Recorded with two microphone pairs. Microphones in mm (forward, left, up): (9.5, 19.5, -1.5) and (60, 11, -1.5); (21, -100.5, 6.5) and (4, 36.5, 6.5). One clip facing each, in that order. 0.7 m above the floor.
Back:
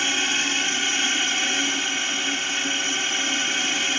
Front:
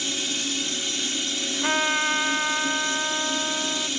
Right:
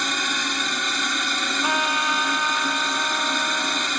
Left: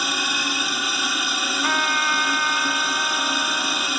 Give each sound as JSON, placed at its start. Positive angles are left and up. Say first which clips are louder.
{"t": 0.0, "sound": "a drone", "louder": "back 6 dB, even", "azimuth_deg": 180}
{"t": 1.6, "sound": "a trumpet", "louder": "front 3 dB, even", "azimuth_deg": -5}